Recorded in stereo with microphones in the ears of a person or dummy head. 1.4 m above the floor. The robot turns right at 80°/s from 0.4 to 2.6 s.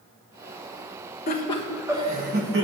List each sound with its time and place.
1.3 s laughter: 140° left, 1.2 m; by 2.6 s 110° right, 1.2 m